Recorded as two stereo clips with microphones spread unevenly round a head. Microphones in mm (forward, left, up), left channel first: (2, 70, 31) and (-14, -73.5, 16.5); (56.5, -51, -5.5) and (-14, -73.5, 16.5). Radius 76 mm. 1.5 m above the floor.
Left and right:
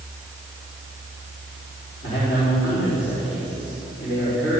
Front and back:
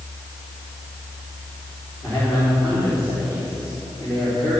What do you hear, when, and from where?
2.0 s a man speaking: 90° left, 5 m